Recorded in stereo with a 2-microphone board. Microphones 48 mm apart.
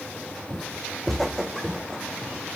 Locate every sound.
0.5 s footsteps: 5° right (ahead or behind), 0.9 m; by 2.4 s 5° left (ahead or behind), 1.9 m